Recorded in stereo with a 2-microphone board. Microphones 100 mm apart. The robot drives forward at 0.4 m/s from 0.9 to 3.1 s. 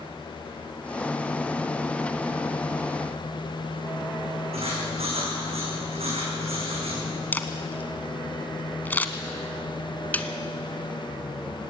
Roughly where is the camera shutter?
Centre.